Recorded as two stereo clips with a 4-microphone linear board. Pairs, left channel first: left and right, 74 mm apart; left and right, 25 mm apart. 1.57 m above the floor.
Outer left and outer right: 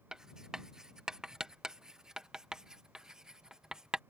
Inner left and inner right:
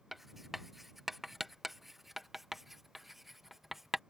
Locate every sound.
0.1 s writing: 10° right (ahead or behind)